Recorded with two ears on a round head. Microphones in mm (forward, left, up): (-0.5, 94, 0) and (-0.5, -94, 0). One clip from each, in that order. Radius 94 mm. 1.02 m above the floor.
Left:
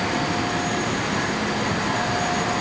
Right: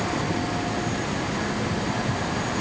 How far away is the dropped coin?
I don't hear a dropped coin.